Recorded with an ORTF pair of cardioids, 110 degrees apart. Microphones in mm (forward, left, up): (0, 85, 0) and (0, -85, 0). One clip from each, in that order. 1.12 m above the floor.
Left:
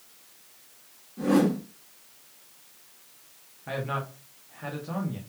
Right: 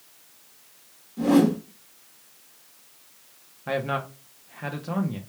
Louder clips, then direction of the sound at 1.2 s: Right 3 dB; 30° right.